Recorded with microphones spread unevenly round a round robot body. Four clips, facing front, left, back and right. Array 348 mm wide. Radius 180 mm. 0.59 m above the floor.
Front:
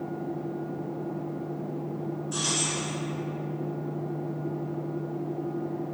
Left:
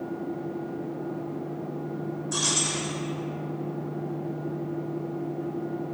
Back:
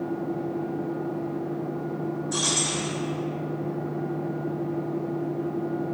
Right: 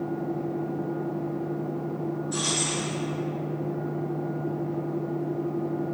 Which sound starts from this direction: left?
Keys jangling, at 2.3 s.